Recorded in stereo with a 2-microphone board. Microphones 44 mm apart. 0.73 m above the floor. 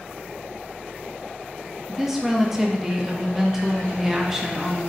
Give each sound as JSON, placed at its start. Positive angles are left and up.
{"t": 1.9, "sound": "a woman speaking", "side_deg": -10, "distance_m": 0.6}